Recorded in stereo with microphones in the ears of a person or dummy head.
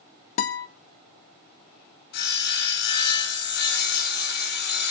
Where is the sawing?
50° left (ahead or behind), 2.5 m.